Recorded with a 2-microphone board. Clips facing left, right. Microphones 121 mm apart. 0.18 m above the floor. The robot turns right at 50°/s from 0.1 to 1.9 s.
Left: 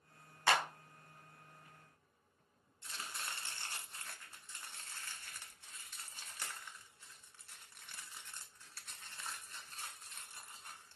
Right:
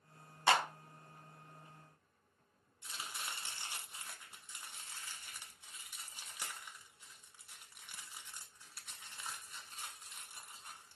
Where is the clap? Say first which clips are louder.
Right 2 dB; 20° right (ahead or behind), 0.9 m; by 0.7 s 25° right (ahead or behind), 0.9 m.